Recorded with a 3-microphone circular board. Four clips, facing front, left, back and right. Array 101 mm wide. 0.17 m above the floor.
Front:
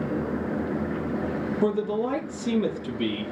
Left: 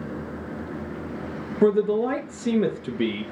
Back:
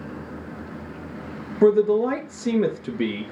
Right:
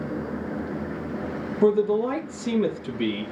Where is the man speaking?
140° left, 2.5 m.